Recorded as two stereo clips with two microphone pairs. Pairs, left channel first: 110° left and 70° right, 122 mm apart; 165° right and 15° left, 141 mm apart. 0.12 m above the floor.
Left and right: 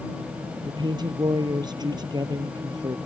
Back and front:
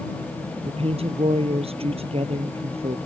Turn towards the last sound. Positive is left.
turn(degrees=-25)